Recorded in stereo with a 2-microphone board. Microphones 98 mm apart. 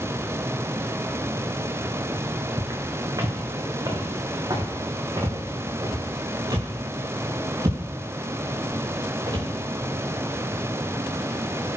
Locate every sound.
2.6 s footsteps: 35° right (ahead or behind), 3 m; by 9.5 s 50° right (ahead or behind), 7.5 m